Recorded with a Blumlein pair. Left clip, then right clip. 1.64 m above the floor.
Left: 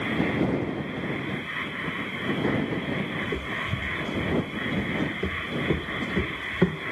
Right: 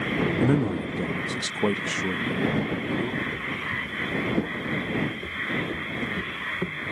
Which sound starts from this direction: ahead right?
A man speaking, at 0.4 s.